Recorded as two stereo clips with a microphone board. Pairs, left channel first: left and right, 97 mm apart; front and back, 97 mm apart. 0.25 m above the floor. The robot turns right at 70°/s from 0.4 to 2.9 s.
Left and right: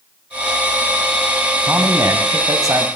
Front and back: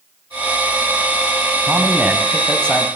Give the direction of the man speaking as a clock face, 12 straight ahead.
5 o'clock.